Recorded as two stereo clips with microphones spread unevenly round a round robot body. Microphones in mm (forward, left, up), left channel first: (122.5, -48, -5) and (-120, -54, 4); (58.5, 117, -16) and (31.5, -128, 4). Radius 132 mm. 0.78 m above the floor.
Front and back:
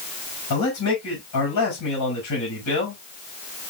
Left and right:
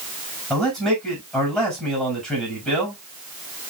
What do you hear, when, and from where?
0.5 s a man speaking: 5° right, 6 m